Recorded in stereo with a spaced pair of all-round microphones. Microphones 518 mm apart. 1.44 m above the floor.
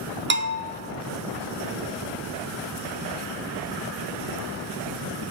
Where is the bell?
20° right (ahead or behind), 0.5 m.